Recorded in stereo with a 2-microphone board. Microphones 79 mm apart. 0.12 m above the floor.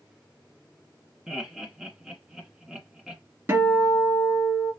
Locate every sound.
1.3 s laughter: 10° right (ahead or behind), 1.1 m
3.5 s a guitar: 30° right (ahead or behind), 2 m